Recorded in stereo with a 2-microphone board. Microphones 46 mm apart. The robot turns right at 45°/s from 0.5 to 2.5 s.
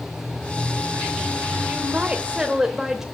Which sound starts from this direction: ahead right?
A woman speaking, at 1.7 s.